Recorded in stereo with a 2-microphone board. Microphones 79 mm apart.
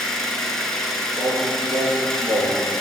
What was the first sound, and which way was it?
An engine running, 5° left (ahead or behind).